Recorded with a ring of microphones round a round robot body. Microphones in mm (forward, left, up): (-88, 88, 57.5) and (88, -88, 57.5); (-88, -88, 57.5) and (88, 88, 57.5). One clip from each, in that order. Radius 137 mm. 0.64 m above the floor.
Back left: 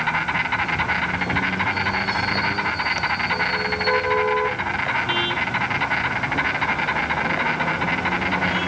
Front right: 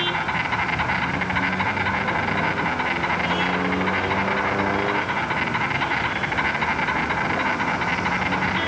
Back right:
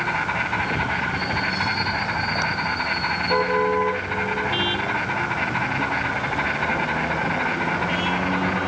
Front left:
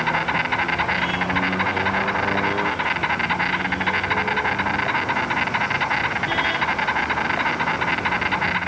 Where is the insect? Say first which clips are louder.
Back left 1 dB, front left 2 dB; 50° left, 3 m.